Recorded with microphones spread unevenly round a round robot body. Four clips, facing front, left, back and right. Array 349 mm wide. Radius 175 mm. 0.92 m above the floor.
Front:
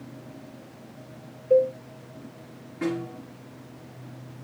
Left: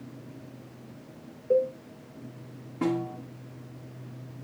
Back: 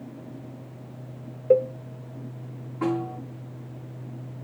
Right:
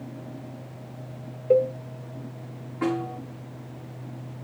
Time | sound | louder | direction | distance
1.5 | a cowbell | right 4 dB, even | 160° right | 0.7 m
2.8 | a snare drum | right 1 dB, back 3 dB | 105° left | 5 m